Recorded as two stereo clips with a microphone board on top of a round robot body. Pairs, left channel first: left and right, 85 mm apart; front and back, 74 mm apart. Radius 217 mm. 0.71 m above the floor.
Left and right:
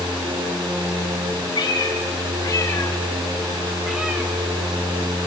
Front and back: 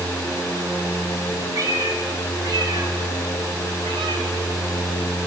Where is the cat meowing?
135° left, 1.9 m; by 4.3 s 160° right, 0.9 m.